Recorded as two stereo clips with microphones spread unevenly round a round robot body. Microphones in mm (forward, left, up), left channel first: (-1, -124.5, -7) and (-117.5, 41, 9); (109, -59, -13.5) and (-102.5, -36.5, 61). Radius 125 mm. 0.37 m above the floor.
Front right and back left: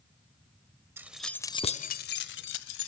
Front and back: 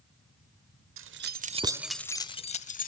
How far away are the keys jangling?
About 1.1 m.